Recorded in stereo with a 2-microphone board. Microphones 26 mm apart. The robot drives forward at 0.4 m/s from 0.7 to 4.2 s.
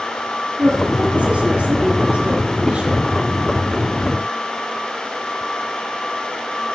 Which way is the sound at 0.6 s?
75° right (ahead or behind).